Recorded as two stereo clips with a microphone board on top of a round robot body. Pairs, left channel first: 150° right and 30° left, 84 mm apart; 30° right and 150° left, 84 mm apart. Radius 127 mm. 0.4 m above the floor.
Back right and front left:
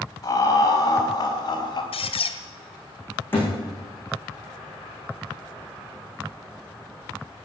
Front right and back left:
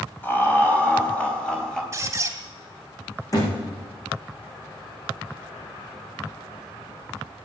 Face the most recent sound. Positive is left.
turn(degrees=-80)